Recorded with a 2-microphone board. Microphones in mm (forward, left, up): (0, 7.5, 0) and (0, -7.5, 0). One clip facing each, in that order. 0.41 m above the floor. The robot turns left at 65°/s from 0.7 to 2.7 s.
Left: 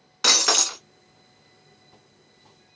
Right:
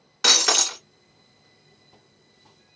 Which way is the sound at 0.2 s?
10° left (ahead or behind).